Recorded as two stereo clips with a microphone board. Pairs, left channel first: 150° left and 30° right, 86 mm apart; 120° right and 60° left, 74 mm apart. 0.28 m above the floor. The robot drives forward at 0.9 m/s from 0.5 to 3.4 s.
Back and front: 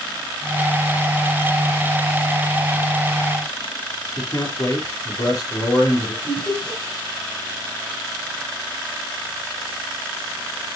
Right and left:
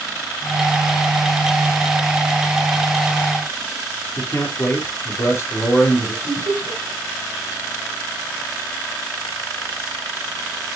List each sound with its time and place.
4.2 s a man speaking: 170° right, 4 m
6.2 s laughter: 80° left, 4 m